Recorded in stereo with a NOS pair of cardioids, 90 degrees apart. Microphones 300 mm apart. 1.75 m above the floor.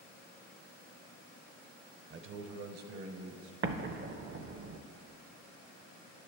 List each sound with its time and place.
2.1 s a man speaking: 35° right, 0.6 m; by 3.5 s 65° right, 1.4 m
3.6 s an explosion: 35° right, 0.6 m